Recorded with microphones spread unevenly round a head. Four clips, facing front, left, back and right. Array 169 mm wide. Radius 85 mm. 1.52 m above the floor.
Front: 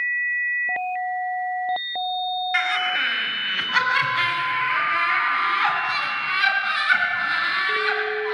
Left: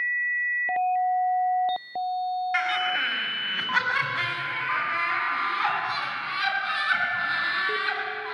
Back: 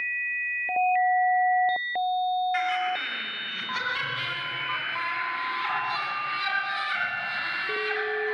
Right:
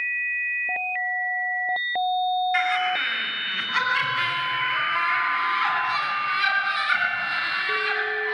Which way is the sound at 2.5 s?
50° left.